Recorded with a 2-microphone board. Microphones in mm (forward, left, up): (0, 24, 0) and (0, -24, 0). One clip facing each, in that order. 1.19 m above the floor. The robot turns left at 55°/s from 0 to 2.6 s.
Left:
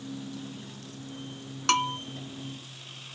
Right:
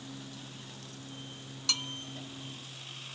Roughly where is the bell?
Left.